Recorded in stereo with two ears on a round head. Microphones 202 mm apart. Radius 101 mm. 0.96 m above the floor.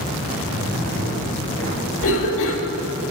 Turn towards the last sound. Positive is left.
turn(degrees=65)  # may be behind; listen again after turning